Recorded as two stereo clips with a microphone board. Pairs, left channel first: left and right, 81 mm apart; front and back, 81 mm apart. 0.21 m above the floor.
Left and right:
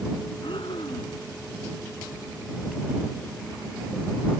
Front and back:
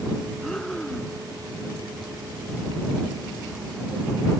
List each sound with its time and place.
0.4 s breathing: 85° left